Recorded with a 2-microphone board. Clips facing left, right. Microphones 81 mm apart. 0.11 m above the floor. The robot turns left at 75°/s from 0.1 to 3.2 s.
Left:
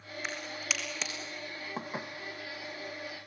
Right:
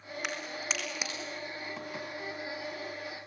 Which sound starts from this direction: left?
Dishes clattering, at 1.8 s.